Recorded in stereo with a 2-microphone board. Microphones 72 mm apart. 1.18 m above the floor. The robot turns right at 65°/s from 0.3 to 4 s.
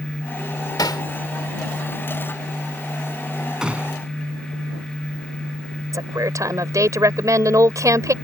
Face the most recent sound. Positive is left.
turn(degrees=-50)  # may be behind; listen again after turning